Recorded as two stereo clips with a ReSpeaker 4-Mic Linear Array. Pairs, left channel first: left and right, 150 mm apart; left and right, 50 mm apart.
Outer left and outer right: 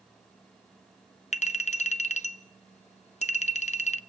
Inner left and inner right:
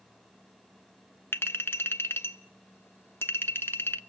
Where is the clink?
50° left (ahead or behind), 0.8 m.